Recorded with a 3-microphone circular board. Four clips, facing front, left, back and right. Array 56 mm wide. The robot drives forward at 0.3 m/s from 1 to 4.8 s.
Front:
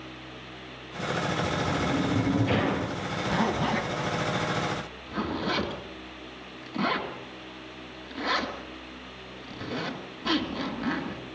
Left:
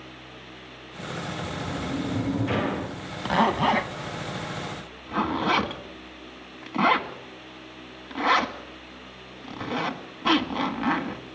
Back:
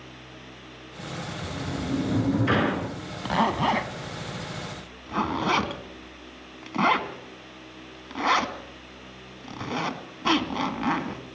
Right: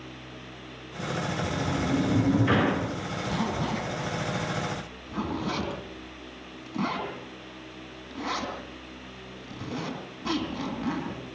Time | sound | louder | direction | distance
1.4 | a sliding door | right 4 dB, front 4 dB | 145° right | 6.5 m
3.2 | a zipper | left 9 dB, back 4 dB | 115° left | 1.7 m